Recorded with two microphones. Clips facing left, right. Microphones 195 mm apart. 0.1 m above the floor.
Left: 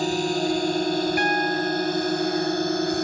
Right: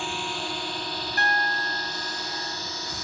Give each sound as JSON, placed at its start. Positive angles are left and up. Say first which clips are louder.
{"t": 0.0, "sound": "a drone", "louder": "left 11 dB", "side_deg": 40}
{"t": 1.2, "sound": "a piano", "louder": "left 8 dB", "side_deg": 15}